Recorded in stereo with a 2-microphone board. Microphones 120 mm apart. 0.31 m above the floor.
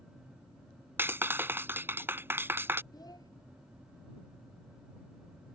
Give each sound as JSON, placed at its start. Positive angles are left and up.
{"t": 1.0, "sound": "a clap", "side_deg": -20}
{"t": 2.9, "sound": "a child speaking", "side_deg": 35}